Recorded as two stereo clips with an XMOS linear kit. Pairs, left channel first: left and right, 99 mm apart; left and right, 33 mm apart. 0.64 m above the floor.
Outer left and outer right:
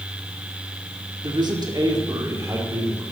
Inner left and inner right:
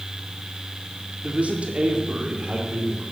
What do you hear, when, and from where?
1.2 s a man speaking: 50° right (ahead or behind), 1.8 m; by 3.0 s 25° right (ahead or behind), 2.5 m